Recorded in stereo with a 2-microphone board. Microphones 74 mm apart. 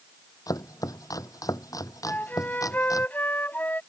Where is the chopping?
50° left (ahead or behind).